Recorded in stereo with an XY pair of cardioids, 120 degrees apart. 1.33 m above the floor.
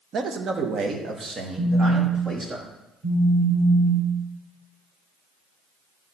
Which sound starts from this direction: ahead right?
A man speaking, at 0.1 s.